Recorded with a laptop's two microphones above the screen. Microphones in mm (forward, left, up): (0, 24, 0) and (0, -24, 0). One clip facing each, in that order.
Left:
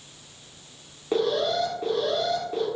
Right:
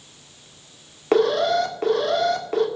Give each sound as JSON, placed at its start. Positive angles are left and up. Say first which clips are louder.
{"t": 1.1, "sound": "an alarm", "louder": "right 6 dB", "side_deg": -80, "distance_m": 1.5}